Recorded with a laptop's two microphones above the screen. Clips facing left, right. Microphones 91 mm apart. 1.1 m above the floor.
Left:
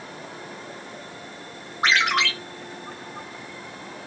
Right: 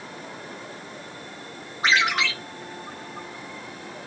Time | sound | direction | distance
1.8 | a ringtone | 75° left (ahead or behind) | 2.5 m